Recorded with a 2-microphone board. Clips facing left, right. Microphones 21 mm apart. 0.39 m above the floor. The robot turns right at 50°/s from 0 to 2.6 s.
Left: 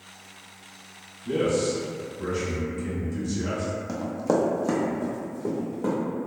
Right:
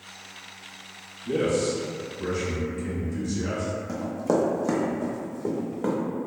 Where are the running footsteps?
30° left (ahead or behind), 0.6 m; by 6.0 s 40° right (ahead or behind), 1.2 m.